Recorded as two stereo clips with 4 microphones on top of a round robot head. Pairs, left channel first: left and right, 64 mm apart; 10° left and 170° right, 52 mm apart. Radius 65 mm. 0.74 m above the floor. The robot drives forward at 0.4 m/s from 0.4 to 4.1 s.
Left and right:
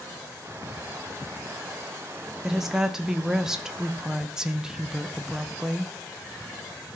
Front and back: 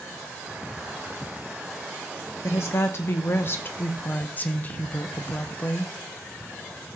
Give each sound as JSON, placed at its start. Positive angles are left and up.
{"t": 2.4, "sound": "a woman speaking", "azimuth_deg": -5, "distance_m": 1.2}